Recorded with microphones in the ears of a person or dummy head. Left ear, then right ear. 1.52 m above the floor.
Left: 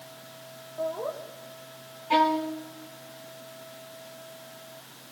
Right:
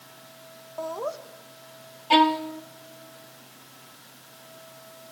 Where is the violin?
35° right (ahead or behind), 1.0 m.